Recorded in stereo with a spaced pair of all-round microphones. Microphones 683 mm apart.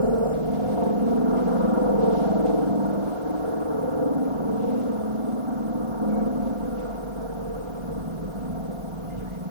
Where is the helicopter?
45° right (ahead or behind).